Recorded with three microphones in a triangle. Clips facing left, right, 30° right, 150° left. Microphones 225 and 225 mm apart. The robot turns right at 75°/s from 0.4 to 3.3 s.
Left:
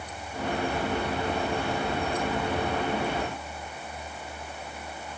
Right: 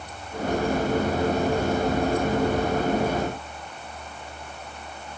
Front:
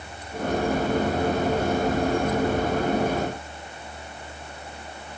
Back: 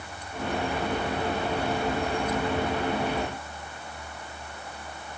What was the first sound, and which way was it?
Only background noise.